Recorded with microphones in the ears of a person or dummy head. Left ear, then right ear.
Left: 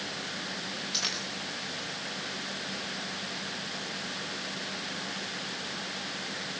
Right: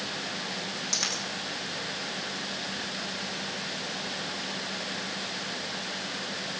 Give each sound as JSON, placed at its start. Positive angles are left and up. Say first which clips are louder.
{"t": 0.9, "sound": "a dropped coin", "louder": "right 2 dB", "side_deg": -80, "distance_m": 8.0}